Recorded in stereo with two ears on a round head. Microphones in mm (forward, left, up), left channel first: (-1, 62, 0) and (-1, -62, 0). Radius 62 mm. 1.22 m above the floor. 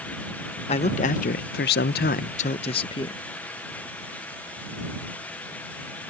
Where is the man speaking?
45° left (ahead or behind); by 3.2 s 30° left (ahead or behind).